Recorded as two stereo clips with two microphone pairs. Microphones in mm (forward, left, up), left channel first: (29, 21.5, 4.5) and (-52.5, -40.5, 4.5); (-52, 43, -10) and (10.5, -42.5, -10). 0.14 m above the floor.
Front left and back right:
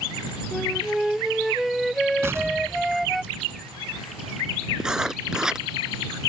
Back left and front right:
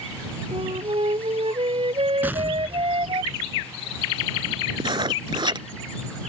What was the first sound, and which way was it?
A flute, 55° right.